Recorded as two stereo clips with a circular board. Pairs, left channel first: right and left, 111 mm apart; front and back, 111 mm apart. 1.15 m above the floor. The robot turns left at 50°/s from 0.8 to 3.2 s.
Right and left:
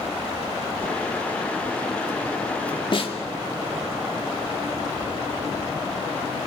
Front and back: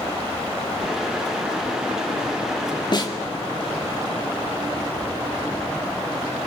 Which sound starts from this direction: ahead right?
A snare drum, at 2.9 s.